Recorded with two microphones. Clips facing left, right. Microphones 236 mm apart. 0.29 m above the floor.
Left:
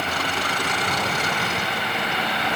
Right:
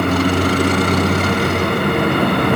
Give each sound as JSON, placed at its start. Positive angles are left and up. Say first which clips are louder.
{"t": 0.0, "sound": "a vehicle", "louder": "right 14 dB", "side_deg": -60}